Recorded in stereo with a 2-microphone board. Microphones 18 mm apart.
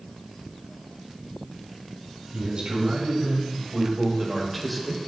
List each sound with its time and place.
2.3 s a man speaking: 60° right (ahead or behind), 4 m; by 5.1 s 20° left (ahead or behind), 2.5 m